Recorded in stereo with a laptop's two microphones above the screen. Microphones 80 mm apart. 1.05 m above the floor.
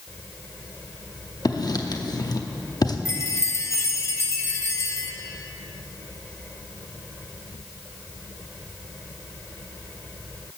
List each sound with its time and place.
1.4 s writing: 55° left (ahead or behind), 0.7 m
3.0 s a chime: 35° left (ahead or behind), 0.8 m